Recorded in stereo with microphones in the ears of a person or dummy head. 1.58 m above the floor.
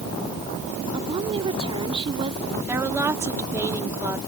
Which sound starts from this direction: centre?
A woman speaking, at 2.7 s.